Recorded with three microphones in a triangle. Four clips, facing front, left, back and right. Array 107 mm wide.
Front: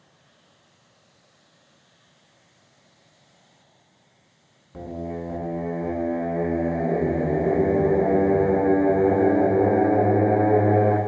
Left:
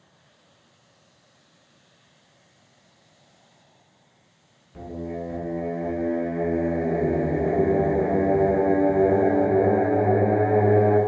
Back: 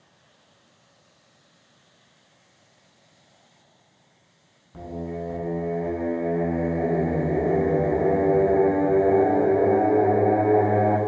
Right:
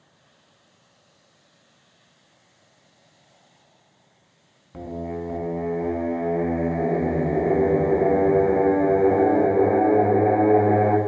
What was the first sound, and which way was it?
Singing, 80° right.